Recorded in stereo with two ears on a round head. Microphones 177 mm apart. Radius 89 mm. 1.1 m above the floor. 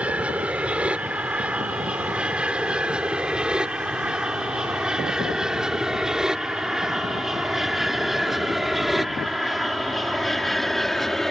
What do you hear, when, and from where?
0.0 s an aircraft: 5° right (ahead or behind); by 11.3 s centre (ahead or behind)